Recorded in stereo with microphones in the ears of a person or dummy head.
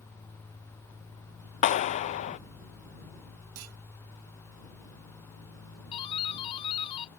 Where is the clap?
40° left (ahead or behind).